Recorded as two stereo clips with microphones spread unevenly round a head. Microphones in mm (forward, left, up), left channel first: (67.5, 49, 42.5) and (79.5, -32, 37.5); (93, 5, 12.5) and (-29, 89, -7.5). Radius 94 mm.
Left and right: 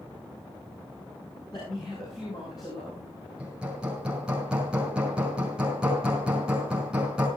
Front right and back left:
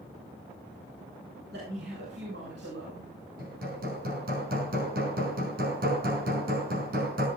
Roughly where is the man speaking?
Behind.